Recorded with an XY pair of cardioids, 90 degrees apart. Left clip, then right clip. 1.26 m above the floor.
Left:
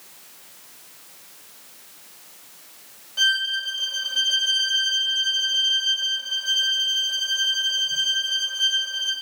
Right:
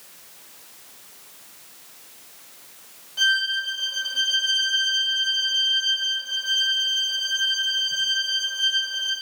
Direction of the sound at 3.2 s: 20° left.